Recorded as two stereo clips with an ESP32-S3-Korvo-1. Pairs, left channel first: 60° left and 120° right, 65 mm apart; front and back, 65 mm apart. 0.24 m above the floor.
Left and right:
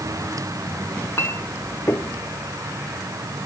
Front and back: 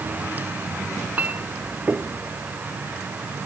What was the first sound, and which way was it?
A clink, 110° left.